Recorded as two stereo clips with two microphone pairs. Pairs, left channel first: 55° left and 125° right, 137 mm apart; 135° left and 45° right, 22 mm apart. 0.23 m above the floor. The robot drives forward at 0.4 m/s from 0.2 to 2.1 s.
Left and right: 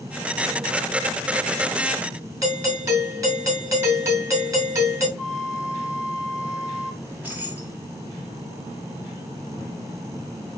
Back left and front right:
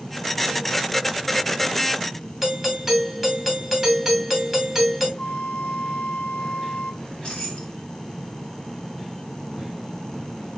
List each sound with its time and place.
2.4 s a doorbell: 115° right, 1.5 m
5.2 s a flute: 150° left, 0.7 m
7.0 s keys jangling: 165° left, 1.2 m